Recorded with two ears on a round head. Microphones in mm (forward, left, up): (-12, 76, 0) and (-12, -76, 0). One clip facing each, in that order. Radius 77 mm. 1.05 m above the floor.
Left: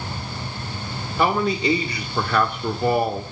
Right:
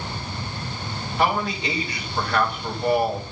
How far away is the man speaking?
About 2.5 m.